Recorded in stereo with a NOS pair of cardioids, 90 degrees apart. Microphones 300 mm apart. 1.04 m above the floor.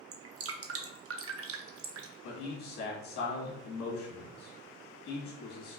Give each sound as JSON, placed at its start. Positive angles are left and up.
{"t": 0.1, "sound": "dripping", "azimuth_deg": -50, "distance_m": 0.6}
{"t": 2.2, "sound": "a man speaking", "azimuth_deg": 70, "distance_m": 1.7}